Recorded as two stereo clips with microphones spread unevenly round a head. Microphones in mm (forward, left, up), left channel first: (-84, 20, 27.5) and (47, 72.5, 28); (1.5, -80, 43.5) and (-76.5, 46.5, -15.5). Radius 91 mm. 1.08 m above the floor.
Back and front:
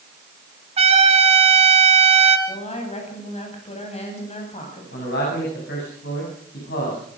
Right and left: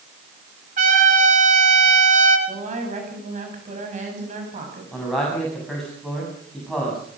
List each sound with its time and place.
0.8 s a trumpet: 65° left, 3.5 m
2.5 s a woman speaking: 160° left, 9 m
4.9 s a man speaking: 145° right, 8 m